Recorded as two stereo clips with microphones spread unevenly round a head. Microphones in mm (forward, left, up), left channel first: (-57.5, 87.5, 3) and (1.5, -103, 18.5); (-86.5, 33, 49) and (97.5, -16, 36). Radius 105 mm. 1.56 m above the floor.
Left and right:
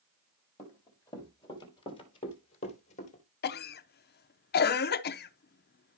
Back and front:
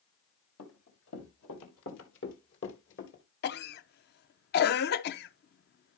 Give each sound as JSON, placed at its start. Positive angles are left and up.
{"t": 0.6, "sound": "running footsteps", "azimuth_deg": -175, "distance_m": 3.0}
{"t": 3.4, "sound": "a cough", "azimuth_deg": 140, "distance_m": 0.6}